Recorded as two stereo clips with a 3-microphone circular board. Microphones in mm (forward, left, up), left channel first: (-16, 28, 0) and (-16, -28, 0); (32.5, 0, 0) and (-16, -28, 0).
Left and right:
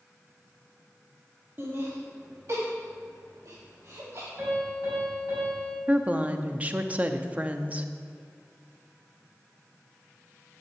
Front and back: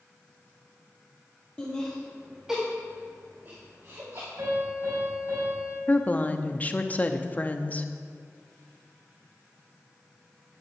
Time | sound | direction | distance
1.6 | laughter | 40° right | 2.5 m
4.4 | a piano | 145° right | 5 m
5.9 | a woman speaking | 25° right | 0.9 m